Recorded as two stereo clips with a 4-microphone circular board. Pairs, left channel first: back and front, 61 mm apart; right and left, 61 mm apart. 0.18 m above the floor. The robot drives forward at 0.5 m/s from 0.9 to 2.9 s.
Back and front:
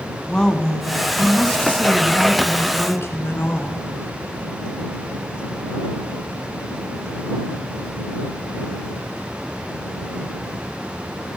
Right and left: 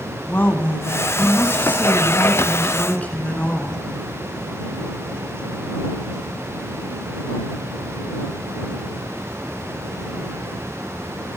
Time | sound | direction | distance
0.3 | a woman speaking | 115° right | 1.5 m